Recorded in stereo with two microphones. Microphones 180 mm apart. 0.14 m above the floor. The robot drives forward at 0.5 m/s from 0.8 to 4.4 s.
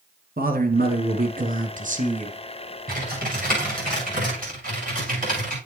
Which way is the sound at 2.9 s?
55° right (ahead or behind).